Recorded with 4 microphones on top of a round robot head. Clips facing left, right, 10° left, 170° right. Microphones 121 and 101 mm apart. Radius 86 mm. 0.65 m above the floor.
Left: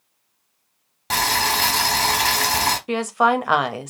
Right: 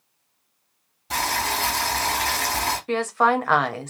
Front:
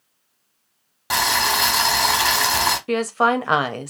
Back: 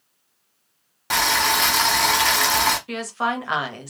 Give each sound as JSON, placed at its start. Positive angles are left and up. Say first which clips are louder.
{"t": 1.1, "sound": "boiling", "louder": "left 3 dB, even", "azimuth_deg": 95, "distance_m": 1.6}
{"t": 2.9, "sound": "a woman speaking", "louder": "left 1 dB, front 6 dB", "azimuth_deg": 20, "distance_m": 0.7}